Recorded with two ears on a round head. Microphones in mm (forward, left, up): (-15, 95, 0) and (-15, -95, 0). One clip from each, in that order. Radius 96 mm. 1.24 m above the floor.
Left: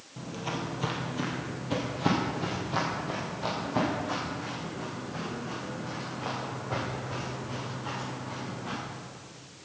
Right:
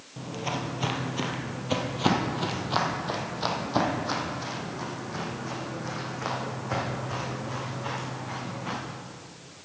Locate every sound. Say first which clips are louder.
0.2 s footsteps: right 3 dB; 10° right (ahead or behind), 1.4 m; by 8.8 s 75° right (ahead or behind), 5 m